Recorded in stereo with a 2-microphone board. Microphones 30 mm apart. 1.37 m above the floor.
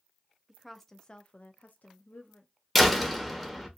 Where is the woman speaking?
5° right (ahead or behind), 0.7 m; by 2.5 s 70° left (ahead or behind), 0.9 m.